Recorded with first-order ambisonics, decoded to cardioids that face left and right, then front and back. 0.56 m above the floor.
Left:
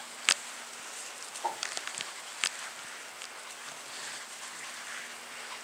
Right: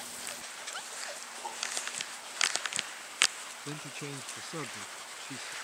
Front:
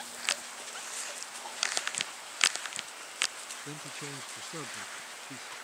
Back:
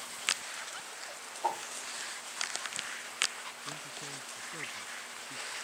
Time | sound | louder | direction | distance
1.4 | a whoosh | left 4 dB, back 2 dB | 150° left | ?
3.6 | a man speaking | right 1 dB, front 1 dB | 65° right | ?